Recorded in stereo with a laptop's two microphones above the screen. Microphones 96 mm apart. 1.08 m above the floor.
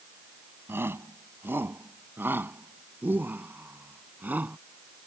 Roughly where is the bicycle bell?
I don't hear a bicycle bell.